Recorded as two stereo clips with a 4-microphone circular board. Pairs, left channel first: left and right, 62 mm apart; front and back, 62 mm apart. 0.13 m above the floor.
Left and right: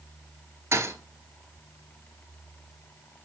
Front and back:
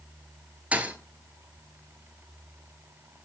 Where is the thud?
120° right, 0.8 m.